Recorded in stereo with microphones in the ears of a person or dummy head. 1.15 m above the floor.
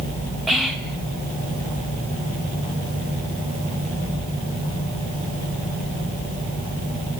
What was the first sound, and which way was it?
Whispering, 5° right (ahead or behind).